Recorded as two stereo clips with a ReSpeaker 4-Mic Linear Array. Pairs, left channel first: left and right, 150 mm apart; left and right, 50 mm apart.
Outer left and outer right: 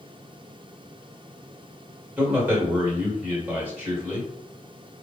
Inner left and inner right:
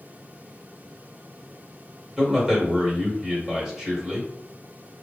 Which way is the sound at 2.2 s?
15° right (ahead or behind).